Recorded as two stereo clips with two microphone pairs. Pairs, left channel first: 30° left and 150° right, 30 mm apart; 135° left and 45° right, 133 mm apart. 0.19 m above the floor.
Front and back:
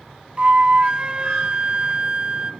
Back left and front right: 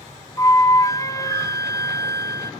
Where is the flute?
Straight behind, 0.9 m.